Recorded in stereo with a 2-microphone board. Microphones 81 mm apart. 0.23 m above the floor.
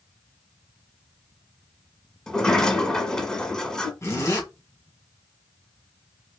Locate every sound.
2.3 s a sliding door: 5° left (ahead or behind), 1.1 m
4.0 s a zipper: 35° left (ahead or behind), 2.0 m